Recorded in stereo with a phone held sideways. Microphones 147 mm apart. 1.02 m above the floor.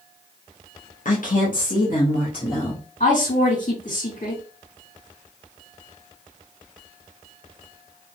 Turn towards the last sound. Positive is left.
turn(degrees=55)  # may be behind; listen again after turning